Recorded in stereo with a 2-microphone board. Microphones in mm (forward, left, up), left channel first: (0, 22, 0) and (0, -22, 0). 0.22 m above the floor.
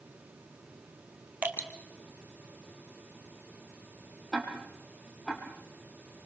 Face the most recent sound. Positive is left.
turn(degrees=0)  # may be behind; listen again after turning